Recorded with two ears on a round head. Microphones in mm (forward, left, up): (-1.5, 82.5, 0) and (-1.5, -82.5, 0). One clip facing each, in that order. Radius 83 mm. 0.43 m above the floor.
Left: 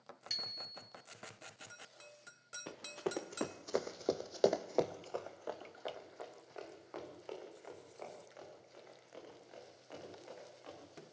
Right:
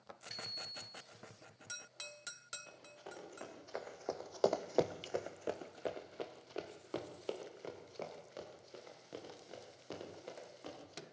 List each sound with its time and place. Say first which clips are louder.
0.3 s a bicycle bell: right 3 dB; 60° left (ahead or behind), 4 m
2.7 s running footsteps: left 13 dB; 80° left, 2.5 m; by 11.0 s 55° right (ahead or behind), 10 m